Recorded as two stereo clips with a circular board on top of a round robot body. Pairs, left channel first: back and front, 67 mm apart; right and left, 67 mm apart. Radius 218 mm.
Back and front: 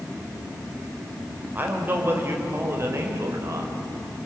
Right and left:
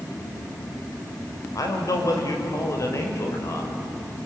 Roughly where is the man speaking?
Ahead right.